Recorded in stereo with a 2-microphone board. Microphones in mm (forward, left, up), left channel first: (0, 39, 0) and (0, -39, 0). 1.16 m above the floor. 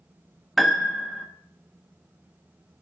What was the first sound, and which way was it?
A piano, centre (ahead or behind).